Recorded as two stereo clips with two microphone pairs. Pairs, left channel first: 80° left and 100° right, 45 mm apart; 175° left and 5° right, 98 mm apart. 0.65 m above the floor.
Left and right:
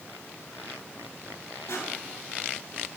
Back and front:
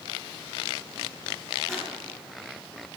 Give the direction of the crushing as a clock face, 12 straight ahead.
9 o'clock.